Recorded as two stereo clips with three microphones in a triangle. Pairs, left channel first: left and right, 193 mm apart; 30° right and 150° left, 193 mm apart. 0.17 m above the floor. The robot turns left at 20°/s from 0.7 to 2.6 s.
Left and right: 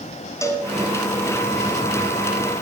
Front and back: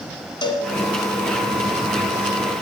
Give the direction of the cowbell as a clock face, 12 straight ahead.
11 o'clock.